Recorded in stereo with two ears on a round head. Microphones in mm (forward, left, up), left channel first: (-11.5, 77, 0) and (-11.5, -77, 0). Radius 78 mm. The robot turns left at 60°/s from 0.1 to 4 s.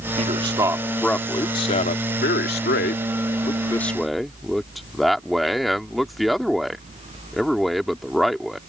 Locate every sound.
0.2 s a man speaking: 130° right; by 8.6 s straight ahead